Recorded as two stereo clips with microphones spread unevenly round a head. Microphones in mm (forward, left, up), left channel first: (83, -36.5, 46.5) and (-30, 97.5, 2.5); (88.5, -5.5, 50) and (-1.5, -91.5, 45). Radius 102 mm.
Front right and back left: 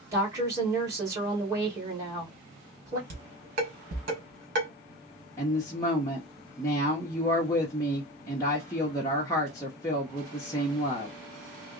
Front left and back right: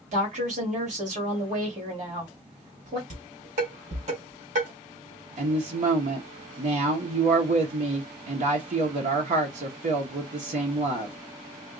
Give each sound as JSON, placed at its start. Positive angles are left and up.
{"t": 0.1, "sound": "a woman speaking", "azimuth_deg": -160, "distance_m": 2.5}
{"t": 3.1, "sound": "dishes clattering", "azimuth_deg": 175, "distance_m": 2.5}
{"t": 5.4, "sound": "a woman speaking", "azimuth_deg": -130, "distance_m": 0.9}